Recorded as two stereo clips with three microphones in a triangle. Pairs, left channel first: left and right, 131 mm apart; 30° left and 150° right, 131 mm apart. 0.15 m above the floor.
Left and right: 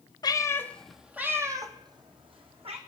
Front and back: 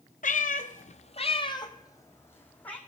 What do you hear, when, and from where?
0.2 s a cat meowing: 35° left, 0.6 m; by 2.8 s 50° right, 1.2 m